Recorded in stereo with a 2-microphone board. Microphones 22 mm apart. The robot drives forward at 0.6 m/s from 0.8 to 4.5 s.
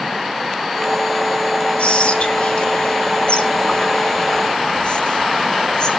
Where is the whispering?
65° left (ahead or behind), 3.5 m; by 5.9 s 45° left (ahead or behind), 4.5 m.